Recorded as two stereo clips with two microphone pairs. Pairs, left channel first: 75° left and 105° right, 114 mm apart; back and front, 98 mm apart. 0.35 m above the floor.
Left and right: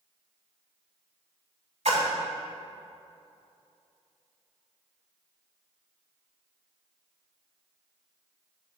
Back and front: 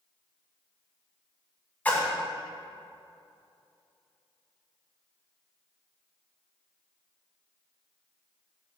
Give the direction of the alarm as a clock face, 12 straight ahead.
I don't hear an alarm.